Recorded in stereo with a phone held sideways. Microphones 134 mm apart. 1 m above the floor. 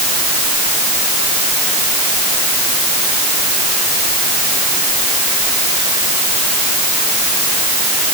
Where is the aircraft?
I don't hear an aircraft.